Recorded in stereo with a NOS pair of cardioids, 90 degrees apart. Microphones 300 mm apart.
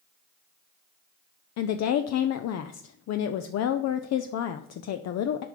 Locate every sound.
1.6 s a woman speaking: 60° left, 0.6 m